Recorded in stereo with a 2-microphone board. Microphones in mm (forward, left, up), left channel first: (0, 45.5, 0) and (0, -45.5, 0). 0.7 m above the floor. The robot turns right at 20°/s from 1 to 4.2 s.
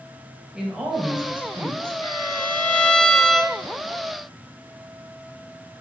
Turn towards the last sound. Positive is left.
turn(degrees=-170)